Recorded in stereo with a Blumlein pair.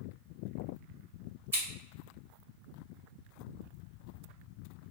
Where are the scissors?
65° right, 1.3 m.